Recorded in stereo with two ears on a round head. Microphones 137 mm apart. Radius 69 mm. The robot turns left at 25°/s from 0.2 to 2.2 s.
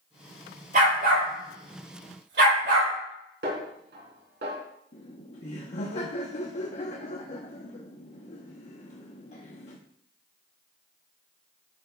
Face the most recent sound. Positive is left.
turn(degrees=50)  # may be behind; listen again after turning